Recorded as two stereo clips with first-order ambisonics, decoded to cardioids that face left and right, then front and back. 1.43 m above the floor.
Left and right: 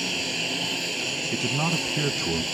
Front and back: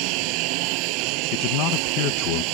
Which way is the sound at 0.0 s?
175° right.